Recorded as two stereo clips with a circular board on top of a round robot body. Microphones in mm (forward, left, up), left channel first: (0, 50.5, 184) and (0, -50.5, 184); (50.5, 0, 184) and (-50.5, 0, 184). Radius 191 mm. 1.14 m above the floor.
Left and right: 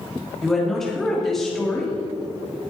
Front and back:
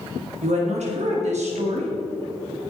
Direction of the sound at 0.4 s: 175° left.